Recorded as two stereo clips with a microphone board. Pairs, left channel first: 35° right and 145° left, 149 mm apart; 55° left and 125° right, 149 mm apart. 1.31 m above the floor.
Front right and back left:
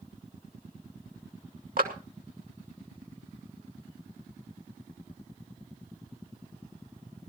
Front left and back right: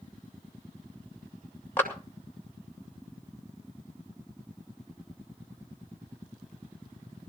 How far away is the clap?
About 2 m.